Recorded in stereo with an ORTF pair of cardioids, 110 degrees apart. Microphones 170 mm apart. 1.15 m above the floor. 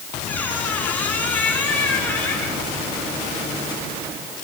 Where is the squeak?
10° left, 9 m.